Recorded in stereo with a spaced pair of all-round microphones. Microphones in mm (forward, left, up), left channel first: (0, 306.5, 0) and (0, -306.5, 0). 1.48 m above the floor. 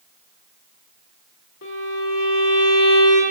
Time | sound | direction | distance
1.6 | a violin | 35° left (ahead or behind) | 1.6 m